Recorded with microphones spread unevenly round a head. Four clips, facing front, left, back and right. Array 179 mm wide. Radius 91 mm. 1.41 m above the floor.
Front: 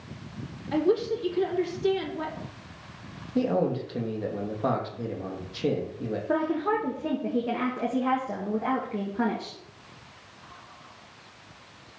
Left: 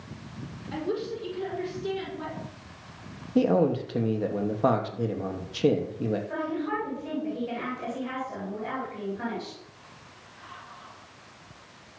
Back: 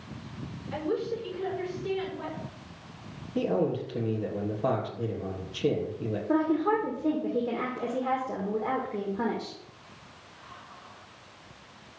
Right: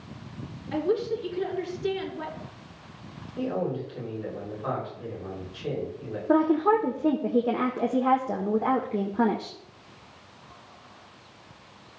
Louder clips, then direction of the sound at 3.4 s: Left 7 dB, front 2 dB; 80° left.